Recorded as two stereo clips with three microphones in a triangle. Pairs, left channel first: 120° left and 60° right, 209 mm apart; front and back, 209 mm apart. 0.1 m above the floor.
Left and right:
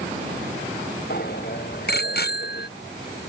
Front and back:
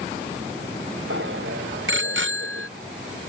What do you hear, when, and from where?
1.1 s a bicycle bell: 160° left